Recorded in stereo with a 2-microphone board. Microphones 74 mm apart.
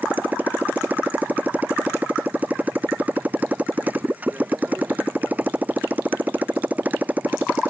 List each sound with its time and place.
0.0 s a motorcycle: 20° right (ahead or behind)